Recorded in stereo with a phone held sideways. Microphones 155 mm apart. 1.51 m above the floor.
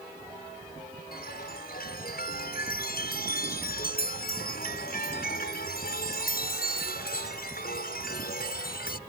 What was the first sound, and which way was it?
A chime, 80° left.